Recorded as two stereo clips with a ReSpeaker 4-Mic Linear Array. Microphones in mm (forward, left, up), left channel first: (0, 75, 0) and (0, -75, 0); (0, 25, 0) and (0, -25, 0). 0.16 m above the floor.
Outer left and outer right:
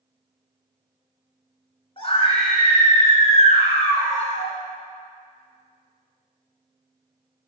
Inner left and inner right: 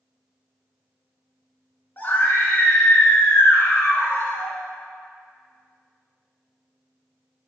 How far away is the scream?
About 1.3 m.